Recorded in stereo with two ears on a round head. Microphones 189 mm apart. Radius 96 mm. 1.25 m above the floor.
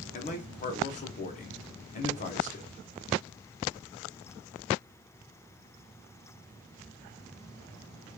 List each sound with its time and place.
0.1 s a man speaking: 35° left (ahead or behind), 0.9 m